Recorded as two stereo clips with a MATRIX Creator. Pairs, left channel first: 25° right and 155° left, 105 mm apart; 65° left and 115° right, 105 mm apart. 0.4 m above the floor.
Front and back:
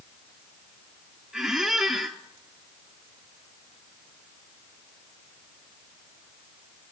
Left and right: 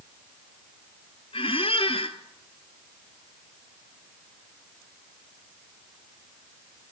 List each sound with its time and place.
1.3 s a squeak: 70° left, 0.7 m